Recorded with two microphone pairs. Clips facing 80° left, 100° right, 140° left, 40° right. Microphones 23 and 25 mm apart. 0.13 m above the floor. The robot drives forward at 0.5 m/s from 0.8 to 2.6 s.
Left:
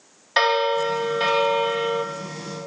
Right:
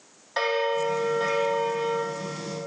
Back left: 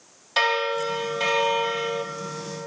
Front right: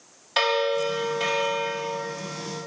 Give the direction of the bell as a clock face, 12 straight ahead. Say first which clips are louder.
Left 5 dB, even; 10 o'clock.